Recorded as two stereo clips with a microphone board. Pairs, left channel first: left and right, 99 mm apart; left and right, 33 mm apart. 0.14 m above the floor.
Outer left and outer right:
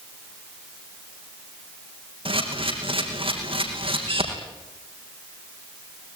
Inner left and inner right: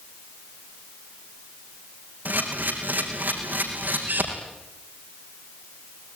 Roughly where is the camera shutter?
Right.